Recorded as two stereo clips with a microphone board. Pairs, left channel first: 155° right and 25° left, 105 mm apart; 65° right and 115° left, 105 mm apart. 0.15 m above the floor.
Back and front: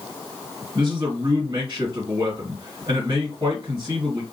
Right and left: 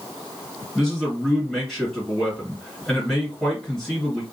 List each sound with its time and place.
0.8 s a man speaking: 15° left, 2 m